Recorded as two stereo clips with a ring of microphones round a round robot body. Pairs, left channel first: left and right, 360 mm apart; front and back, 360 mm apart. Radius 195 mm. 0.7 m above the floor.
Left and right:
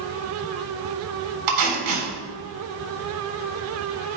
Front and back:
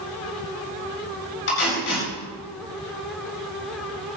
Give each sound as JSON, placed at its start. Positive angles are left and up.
{"t": 1.5, "sound": "tape being pulled", "azimuth_deg": -60, "distance_m": 7.5}